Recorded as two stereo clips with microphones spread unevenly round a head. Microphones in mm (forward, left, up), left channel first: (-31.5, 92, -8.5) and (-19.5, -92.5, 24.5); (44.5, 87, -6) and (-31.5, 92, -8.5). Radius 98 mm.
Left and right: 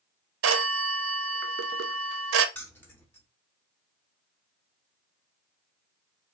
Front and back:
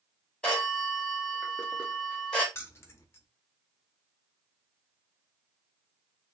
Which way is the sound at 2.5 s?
5° left.